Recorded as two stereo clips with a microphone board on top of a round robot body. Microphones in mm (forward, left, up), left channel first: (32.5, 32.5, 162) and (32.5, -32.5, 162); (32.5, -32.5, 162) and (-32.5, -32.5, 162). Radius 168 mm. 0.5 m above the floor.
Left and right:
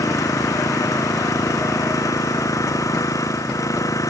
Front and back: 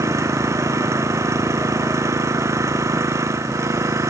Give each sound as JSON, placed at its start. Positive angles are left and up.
{"t": 0.0, "sound": "an engine running", "azimuth_deg": 135}